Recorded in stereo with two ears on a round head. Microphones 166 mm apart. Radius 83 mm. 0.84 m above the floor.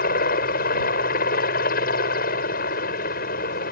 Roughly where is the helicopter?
Left.